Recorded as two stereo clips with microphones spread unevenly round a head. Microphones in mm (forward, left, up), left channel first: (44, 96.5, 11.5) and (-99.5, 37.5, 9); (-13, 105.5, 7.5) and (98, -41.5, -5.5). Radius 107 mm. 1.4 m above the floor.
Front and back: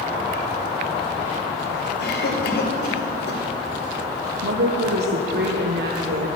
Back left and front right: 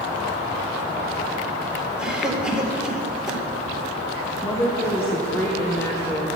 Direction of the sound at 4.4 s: 150° right.